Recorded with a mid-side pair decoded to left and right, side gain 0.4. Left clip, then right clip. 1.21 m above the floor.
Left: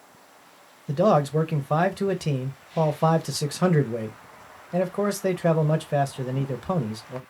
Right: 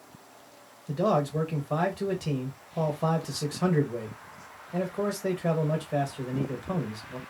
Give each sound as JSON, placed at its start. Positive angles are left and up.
{"t": 0.9, "sound": "a man speaking", "azimuth_deg": 55, "distance_m": 0.7}